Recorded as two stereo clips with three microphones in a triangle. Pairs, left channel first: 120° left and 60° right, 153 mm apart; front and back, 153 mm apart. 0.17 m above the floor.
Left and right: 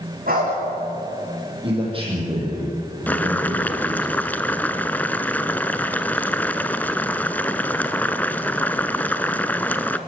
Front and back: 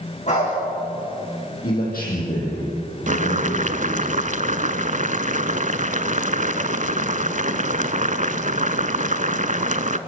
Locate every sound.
0.3 s a dog barking: 40° right, 9.5 m
1.6 s a man speaking: 10° right, 8 m
3.1 s boiling: 165° right, 0.7 m